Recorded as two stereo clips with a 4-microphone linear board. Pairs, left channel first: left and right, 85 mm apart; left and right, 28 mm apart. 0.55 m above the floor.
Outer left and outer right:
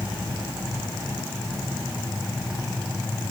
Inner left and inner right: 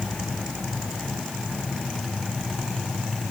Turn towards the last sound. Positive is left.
No sound to turn to.